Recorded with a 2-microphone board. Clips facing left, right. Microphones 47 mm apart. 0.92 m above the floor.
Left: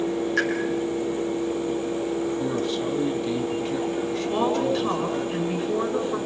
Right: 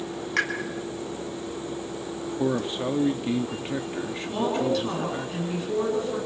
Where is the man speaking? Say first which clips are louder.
Left 1 dB; 25° right (ahead or behind), 1.4 m.